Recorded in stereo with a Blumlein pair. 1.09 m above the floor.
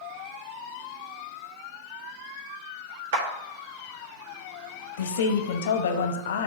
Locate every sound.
3.1 s a clap: 60° right, 1.4 m
5.0 s a woman speaking: 60° left, 0.9 m